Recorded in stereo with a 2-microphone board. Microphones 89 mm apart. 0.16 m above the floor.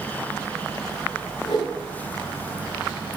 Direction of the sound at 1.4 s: 70° left (ahead or behind).